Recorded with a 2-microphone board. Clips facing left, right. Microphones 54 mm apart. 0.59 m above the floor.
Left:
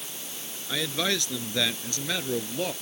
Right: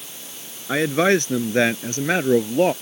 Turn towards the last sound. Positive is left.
turn(degrees=-45)  # may be behind; listen again after turning